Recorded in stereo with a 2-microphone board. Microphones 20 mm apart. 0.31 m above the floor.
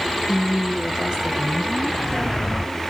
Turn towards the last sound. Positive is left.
turn(degrees=-30)  # may be behind; listen again after turning